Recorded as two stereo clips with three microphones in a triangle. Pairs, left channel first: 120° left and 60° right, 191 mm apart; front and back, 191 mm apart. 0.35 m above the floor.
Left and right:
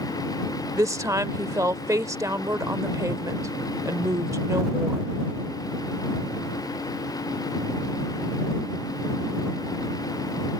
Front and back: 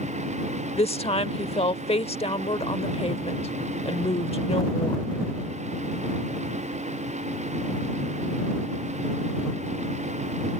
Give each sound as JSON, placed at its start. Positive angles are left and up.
{"t": 0.8, "sound": "a woman speaking", "azimuth_deg": 0}